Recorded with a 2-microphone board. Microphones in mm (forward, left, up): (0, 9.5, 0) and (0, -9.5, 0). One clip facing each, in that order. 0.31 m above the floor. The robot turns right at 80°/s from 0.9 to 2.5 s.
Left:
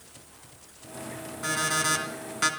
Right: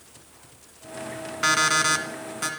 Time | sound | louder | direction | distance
1.4 | an alarm clock | right 6 dB | 65° right | 1.9 m